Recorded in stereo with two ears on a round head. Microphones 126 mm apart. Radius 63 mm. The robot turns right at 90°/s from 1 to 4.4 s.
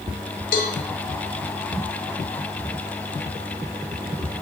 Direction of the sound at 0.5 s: 65° left (ahead or behind).